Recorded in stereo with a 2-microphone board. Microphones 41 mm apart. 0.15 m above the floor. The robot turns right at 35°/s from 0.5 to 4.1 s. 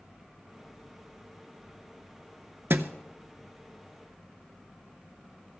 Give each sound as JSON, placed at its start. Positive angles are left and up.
{"t": 2.7, "sound": "a thud", "side_deg": -65, "distance_m": 0.5}